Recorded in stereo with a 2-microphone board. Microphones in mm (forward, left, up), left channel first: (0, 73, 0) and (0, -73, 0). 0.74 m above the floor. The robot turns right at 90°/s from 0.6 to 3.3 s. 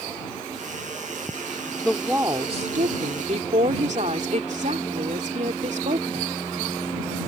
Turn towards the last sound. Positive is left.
turn(degrees=-60)